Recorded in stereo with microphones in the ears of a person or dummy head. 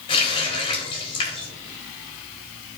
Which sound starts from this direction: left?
A running tap, at 0.1 s.